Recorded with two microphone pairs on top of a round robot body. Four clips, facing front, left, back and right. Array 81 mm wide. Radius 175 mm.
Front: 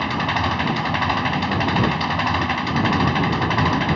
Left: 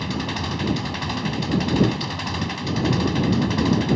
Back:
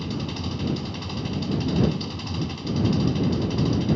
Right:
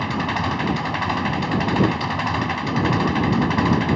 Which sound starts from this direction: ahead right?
An engine running, at 0.0 s.